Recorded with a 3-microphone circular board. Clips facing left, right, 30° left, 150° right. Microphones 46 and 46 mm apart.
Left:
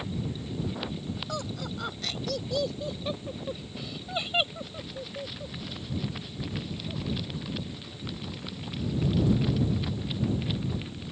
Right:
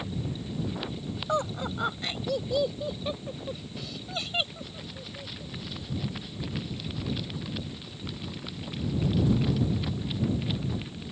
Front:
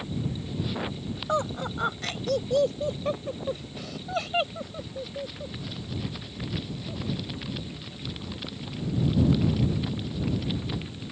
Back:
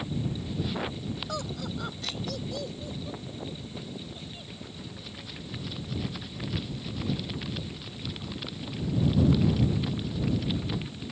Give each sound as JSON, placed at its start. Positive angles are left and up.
{"t": 1.3, "sound": "laughter", "azimuth_deg": -30}